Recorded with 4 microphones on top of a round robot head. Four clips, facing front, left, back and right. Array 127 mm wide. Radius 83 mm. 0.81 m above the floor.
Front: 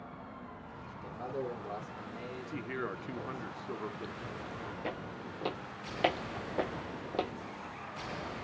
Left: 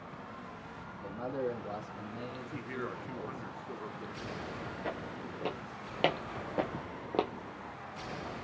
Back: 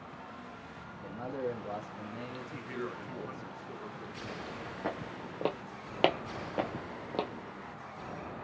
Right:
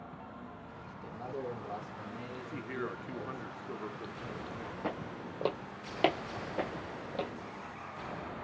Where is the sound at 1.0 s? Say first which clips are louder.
Left 4 dB, back 2 dB; 135° left, 1.6 m; by 3.5 s 175° left, 2 m.